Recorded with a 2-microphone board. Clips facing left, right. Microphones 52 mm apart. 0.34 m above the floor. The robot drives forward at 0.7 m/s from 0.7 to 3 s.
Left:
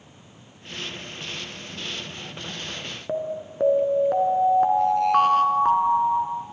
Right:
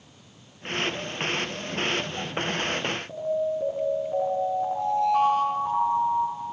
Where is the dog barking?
I don't hear a dog barking.